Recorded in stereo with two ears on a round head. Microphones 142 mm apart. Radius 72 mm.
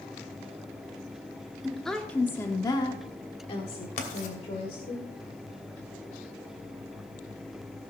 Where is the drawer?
I don't hear a drawer.